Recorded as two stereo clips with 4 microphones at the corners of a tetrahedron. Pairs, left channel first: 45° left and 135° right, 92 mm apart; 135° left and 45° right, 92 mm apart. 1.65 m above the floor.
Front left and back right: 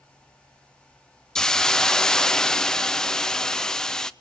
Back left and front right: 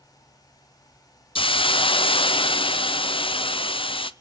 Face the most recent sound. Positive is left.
turn(degrees=130)